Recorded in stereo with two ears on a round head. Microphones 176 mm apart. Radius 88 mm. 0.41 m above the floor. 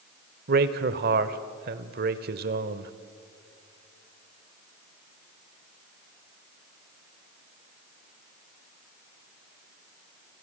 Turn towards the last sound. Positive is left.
turn(degrees=-50)  # may be behind; listen again after turning